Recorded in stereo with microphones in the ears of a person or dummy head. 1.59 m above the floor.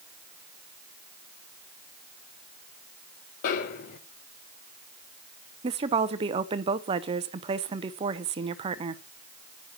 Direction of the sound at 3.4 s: 45° left (ahead or behind).